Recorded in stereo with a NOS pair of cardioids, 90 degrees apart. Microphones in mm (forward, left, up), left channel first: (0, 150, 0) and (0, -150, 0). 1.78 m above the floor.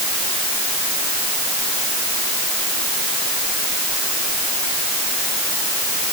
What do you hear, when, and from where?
Only background noise.